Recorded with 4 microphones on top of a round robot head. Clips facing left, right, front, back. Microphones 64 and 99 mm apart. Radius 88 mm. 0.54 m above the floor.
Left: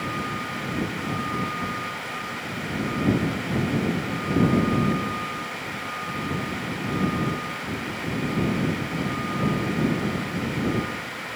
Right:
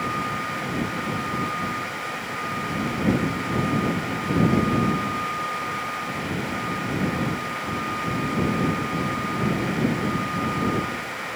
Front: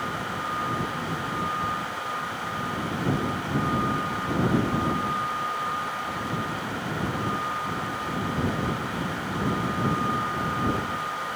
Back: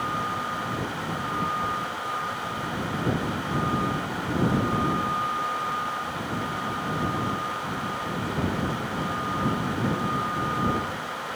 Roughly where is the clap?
I don't hear a clap.